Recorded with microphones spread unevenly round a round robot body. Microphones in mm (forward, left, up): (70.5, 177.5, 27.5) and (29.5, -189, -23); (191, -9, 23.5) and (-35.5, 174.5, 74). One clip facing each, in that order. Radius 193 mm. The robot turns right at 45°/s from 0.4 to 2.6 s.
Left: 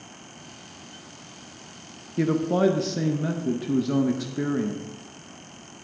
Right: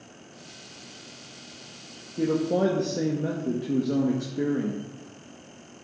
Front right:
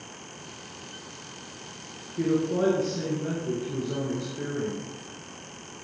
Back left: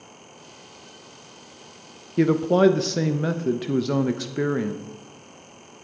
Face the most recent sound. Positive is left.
turn(degrees=150)